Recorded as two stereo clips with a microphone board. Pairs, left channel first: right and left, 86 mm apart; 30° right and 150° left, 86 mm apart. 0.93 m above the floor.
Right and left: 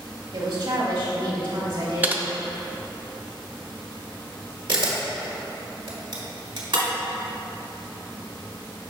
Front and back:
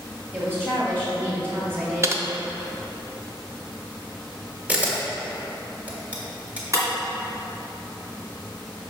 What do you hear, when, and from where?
0.3 s a woman speaking: 90° left, 1.6 m
2.0 s typing on a keyboard: 145° left, 0.5 m
4.7 s a camera shutter: 80° left, 1.4 m
6.7 s breaking glass: 105° left, 2 m